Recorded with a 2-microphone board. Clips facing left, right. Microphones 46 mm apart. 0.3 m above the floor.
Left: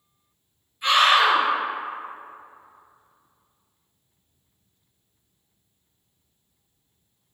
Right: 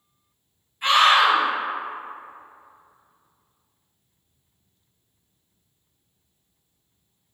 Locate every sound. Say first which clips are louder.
0.8 s a scream: right 1 dB; 30° right (ahead or behind), 1.8 m